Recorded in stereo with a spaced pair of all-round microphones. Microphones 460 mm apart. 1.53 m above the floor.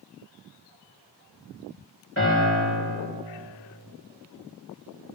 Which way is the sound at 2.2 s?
30° left (ahead or behind).